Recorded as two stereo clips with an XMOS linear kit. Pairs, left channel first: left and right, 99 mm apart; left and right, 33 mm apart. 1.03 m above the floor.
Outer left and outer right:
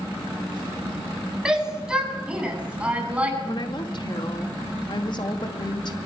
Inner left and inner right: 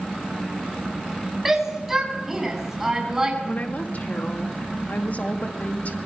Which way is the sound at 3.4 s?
50° left (ahead or behind).